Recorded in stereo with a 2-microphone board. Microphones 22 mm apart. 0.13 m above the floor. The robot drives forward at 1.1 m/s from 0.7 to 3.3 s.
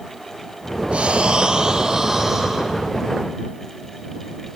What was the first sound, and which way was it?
Breathing, 60° right (ahead or behind).